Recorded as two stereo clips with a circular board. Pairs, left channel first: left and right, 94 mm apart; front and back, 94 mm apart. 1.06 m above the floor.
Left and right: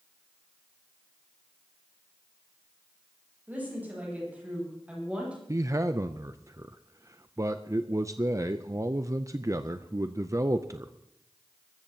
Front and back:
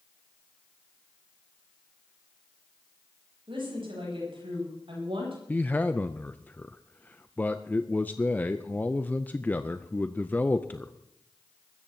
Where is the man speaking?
60° right, 0.5 m.